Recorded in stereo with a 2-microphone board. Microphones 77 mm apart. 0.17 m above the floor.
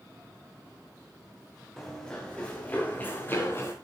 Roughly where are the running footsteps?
Centre.